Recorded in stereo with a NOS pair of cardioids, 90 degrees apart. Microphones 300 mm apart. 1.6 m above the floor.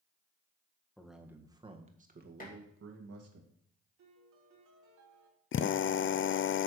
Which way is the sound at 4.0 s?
70° right.